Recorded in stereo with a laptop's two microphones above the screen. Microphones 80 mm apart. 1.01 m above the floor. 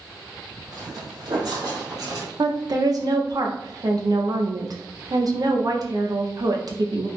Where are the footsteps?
55° right (ahead or behind), 2 m; by 2.3 s 50° right (ahead or behind), 1.6 m.